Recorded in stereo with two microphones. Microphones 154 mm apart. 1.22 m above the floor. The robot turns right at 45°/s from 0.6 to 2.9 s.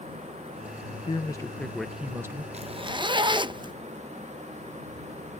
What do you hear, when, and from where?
1.0 s a man speaking: 145° left; by 2.4 s 155° right
2.5 s a zipper: 45° right (ahead or behind); by 3.7 s 30° right (ahead or behind)